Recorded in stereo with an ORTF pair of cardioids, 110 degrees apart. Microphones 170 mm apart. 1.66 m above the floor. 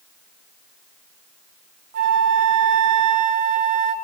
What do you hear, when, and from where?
1.9 s a flute: 60° right, 1.8 m